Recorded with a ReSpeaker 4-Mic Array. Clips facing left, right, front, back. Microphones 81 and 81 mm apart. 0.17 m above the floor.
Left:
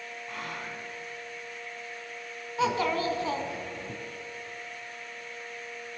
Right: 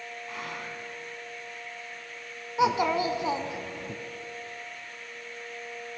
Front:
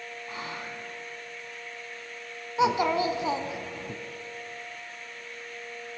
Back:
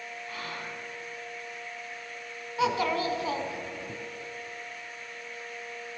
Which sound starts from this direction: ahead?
Whispering, at 0.3 s.